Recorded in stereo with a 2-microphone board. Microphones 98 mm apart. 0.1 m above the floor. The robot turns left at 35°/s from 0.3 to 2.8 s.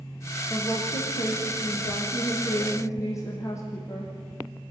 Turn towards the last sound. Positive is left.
turn(degrees=35)